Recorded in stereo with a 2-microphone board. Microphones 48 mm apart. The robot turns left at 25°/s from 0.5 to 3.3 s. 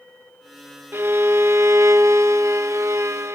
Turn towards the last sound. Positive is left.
turn(degrees=-115)